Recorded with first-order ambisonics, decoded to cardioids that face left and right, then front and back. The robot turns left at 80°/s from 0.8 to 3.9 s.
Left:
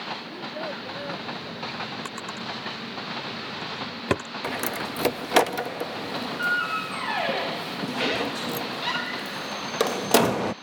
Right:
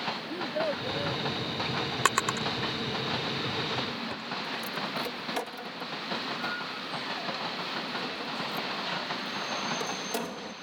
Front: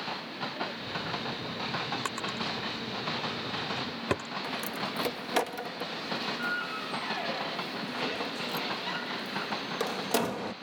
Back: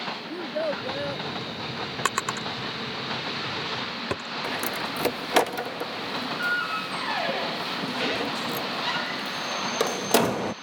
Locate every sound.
0.3 s a child speaking: 160° right; by 1.3 s 160° left
2.0 s a drawer: 125° right; by 4.3 s 85° left
4.4 s a door slam: 120° left